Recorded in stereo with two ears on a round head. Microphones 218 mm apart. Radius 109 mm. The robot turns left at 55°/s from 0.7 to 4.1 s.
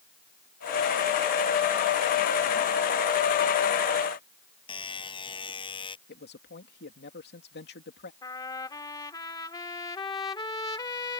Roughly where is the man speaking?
Left.